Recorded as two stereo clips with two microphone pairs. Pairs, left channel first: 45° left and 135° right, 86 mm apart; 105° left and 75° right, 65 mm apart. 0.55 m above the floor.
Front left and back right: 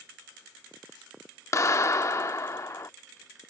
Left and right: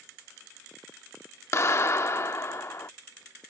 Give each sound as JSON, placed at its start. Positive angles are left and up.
{"t": 1.5, "sound": "a clap", "azimuth_deg": 80}